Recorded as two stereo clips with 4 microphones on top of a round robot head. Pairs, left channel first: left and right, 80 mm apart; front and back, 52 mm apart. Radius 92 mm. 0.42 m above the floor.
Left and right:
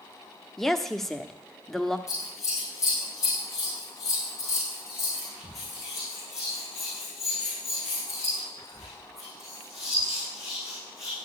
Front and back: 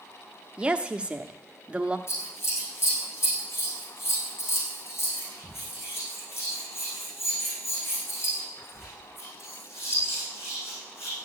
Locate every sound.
0.6 s a woman speaking: 170° left, 1.0 m
2.1 s scissors: 35° left, 7 m